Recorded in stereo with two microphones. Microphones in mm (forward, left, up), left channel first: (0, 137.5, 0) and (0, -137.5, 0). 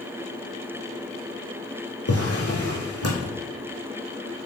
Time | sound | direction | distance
2.1 | a drawer | 60° left (ahead or behind) | 3 m